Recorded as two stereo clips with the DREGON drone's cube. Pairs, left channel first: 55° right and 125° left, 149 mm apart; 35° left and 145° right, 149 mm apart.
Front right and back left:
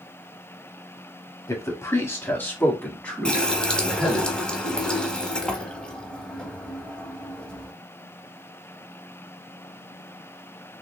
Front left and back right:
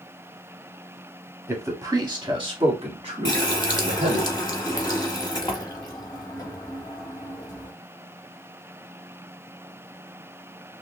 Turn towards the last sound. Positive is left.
turn(degrees=25)